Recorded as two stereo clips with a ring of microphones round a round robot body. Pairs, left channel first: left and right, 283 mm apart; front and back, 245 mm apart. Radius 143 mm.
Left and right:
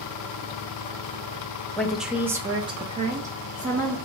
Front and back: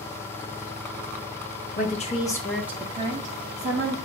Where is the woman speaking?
5° left, 0.8 m; by 4.0 s 150° right, 1.1 m.